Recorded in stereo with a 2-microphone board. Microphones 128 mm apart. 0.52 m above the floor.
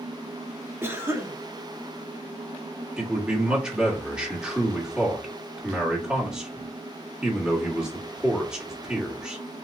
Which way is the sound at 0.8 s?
20° right (ahead or behind).